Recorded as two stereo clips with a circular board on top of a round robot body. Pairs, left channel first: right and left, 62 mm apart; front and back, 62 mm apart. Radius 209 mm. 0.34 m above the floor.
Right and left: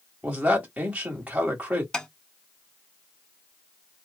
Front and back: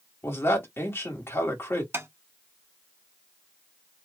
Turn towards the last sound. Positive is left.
turn(degrees=-160)